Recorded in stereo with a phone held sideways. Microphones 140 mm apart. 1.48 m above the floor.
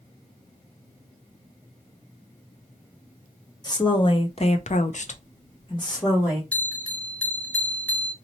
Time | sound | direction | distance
3.6 | a woman speaking | 30° left (ahead or behind) | 0.9 m
6.5 | a bell | 10° left (ahead or behind) | 0.6 m